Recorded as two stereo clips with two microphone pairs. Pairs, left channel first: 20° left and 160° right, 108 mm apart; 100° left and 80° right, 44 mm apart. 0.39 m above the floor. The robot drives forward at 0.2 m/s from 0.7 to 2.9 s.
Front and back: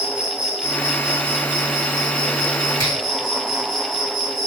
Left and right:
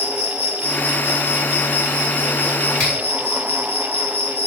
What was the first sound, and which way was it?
An insect, 120° left.